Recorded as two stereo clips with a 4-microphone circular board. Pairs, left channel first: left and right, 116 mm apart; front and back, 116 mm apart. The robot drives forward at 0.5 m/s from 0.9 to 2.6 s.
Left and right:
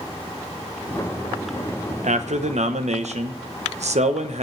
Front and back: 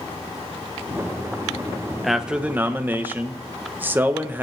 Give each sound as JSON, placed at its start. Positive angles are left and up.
{"t": 2.0, "sound": "a man speaking", "azimuth_deg": -90, "distance_m": 0.9}